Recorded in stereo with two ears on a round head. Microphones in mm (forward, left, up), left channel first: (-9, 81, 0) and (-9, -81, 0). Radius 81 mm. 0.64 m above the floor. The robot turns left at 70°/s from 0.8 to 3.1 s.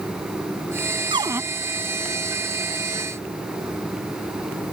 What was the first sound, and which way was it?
A cupboard door, 30° right (ahead or behind).